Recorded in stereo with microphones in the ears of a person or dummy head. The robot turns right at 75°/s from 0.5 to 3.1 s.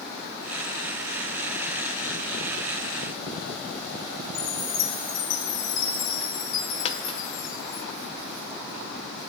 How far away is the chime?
About 1.6 m.